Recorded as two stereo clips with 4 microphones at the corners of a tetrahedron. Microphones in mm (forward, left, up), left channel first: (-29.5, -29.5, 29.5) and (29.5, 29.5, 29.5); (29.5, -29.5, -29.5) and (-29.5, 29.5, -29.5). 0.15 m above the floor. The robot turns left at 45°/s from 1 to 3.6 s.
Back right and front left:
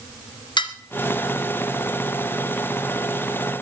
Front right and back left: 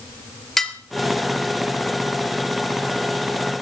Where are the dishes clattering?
130° right, 1.4 m.